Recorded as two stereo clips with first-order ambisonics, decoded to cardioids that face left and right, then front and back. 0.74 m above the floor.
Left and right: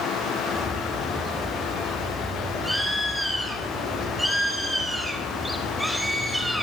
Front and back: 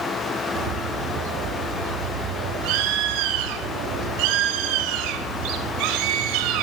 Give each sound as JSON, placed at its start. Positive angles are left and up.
{"t": 0.6, "sound": "a bird", "azimuth_deg": 180, "distance_m": 3.5}